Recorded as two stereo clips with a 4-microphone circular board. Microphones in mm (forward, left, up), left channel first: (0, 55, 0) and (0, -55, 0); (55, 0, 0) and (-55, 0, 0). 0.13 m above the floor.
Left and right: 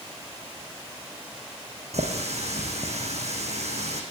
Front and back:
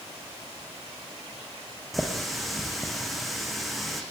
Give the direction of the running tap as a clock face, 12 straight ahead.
3 o'clock.